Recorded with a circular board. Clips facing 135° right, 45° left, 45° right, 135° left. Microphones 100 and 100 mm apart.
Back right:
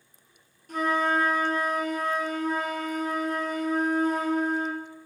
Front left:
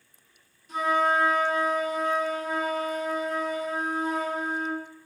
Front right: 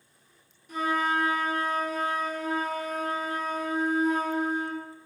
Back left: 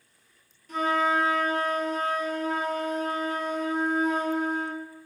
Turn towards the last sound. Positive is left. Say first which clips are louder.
# front left 1 dB, back left 2 dB
turn(degrees=-120)